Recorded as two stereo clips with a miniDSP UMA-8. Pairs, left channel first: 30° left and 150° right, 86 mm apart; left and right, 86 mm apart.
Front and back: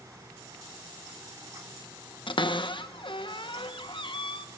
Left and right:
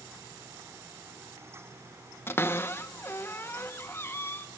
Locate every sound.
2.3 s a cupboard door: 30° left, 1.1 m